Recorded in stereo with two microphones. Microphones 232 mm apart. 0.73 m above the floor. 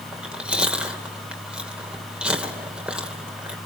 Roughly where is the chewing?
Centre.